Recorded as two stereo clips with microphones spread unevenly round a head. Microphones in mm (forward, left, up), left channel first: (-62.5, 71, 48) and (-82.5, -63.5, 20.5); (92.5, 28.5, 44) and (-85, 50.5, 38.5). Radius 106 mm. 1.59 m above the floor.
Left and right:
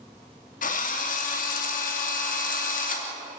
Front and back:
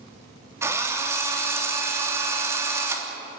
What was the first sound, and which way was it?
A drill, 95° left.